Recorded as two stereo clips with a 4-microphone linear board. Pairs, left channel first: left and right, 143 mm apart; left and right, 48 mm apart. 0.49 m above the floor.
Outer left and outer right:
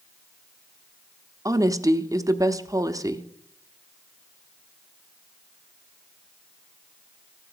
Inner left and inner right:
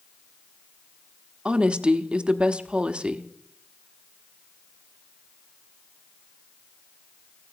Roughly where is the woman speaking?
Right.